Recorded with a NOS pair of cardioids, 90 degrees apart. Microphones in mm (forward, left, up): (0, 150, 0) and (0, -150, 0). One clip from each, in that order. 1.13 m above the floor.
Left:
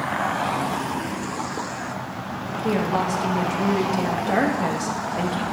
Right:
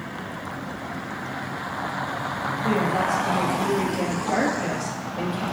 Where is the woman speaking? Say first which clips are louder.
Left 1 dB; 30° left, 1.4 m.